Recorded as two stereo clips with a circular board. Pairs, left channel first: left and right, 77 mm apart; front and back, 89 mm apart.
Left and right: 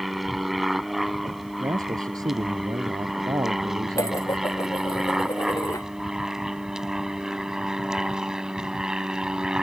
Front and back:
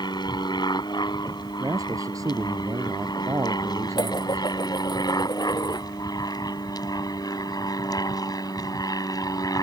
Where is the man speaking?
125° right.